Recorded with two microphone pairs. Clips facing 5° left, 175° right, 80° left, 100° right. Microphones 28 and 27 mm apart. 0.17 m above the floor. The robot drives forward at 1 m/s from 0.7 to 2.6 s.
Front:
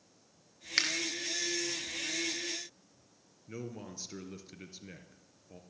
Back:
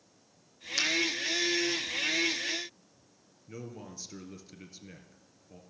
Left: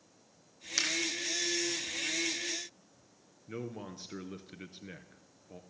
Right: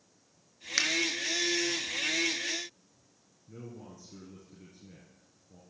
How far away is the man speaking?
About 2.0 m.